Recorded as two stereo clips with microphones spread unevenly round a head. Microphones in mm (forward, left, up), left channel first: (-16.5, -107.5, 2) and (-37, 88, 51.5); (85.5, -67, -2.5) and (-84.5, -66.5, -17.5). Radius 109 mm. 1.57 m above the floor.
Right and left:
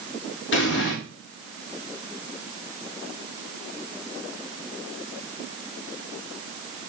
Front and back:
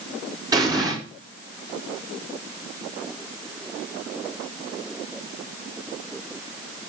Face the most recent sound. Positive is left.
turn(degrees=-110)